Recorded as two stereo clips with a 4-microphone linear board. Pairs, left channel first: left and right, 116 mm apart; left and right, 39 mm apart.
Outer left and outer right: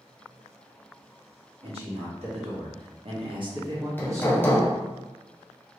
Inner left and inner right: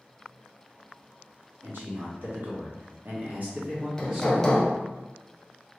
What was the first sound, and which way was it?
A man speaking, 60° right (ahead or behind).